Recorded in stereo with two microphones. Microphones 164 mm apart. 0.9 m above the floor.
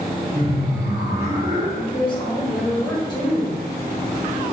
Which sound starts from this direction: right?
Laughter, at 0.3 s.